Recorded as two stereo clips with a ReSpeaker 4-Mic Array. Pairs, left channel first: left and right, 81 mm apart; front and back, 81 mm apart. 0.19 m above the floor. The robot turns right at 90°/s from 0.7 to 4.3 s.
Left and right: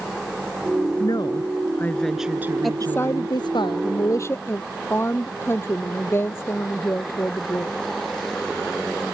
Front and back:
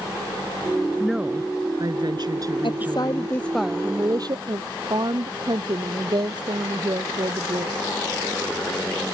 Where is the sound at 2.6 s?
Straight ahead; by 7.8 s 150° left.